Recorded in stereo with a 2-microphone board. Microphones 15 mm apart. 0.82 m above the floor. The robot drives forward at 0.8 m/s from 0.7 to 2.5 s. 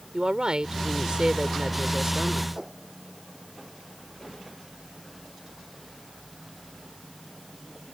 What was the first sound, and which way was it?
A woman speaking, 75° right (ahead or behind).